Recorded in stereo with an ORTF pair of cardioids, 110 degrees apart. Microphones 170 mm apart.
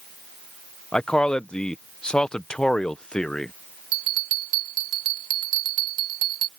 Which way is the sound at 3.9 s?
60° right.